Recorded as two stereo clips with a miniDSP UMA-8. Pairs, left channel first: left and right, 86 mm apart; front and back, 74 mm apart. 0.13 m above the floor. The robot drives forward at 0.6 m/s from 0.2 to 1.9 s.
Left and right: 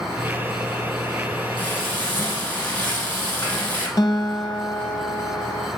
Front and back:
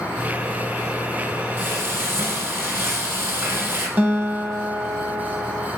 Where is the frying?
145° left, 1.0 m; by 3.9 s 150° left, 1.2 m.